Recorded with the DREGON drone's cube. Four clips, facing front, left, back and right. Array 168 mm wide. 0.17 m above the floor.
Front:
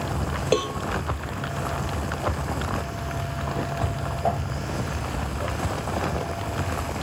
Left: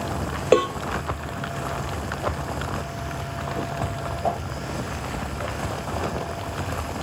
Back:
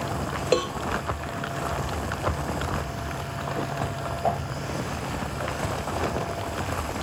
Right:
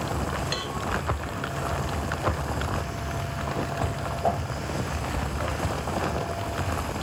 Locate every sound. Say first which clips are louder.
0.5 s a cowbell: left 14 dB, even; 85° left, 0.9 m